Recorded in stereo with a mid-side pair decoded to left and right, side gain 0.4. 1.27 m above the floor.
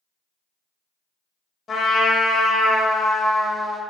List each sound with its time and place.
1.7 s a trumpet: 50° left, 1.0 m